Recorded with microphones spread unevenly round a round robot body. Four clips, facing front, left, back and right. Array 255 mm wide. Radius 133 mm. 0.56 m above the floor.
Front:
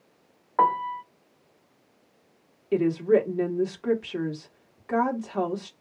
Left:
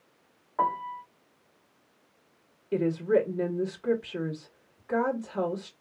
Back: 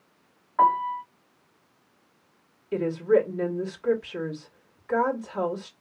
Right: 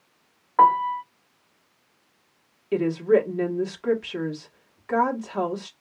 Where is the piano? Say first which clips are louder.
Right 11 dB, back 2 dB; 60° right, 0.7 m.